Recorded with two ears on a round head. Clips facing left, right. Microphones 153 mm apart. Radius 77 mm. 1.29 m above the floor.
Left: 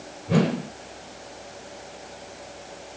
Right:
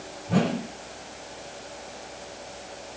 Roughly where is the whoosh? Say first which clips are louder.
Left 2 dB; left.